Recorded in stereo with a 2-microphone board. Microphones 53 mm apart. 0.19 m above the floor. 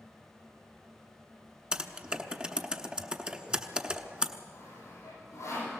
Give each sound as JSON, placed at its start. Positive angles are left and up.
{"t": 1.7, "sound": "typing on a keyboard", "side_deg": -20, "distance_m": 1.0}
{"t": 4.5, "sound": "sawing", "side_deg": 65, "distance_m": 10.0}